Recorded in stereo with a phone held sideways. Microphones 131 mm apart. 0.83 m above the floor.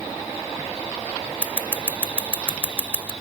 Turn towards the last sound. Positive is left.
turn(degrees=-10)  # may be behind; listen again after turning